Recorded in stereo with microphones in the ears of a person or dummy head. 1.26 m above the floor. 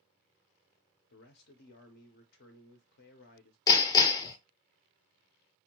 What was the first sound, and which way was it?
A man speaking, 60° left (ahead or behind).